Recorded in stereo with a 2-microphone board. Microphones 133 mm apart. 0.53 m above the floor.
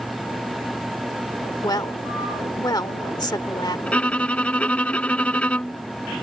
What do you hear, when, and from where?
1.6 s a woman speaking: 30° left (ahead or behind)
3.9 s a violin: 10° left (ahead or behind)